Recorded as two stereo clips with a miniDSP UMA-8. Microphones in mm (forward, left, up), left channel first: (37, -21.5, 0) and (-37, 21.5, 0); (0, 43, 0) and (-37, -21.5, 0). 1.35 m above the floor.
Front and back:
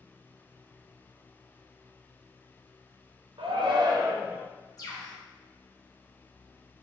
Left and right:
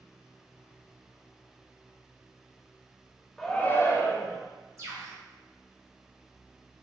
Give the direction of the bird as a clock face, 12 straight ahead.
2 o'clock.